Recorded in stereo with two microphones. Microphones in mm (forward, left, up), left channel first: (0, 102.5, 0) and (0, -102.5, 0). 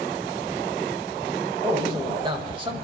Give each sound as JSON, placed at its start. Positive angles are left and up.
{"t": 1.6, "sound": "a man speaking", "side_deg": -25, "distance_m": 1.5}